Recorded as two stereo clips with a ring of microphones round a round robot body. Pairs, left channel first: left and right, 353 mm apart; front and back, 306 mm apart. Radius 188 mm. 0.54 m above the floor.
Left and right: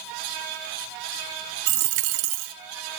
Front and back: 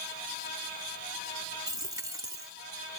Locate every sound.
1.7 s a dropped coin: 100° right, 0.5 m